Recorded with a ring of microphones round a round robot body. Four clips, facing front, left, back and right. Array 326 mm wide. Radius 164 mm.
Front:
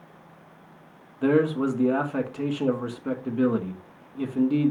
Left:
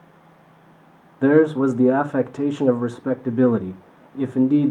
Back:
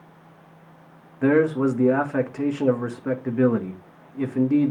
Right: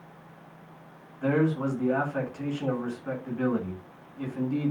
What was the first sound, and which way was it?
A man speaking, 100° left.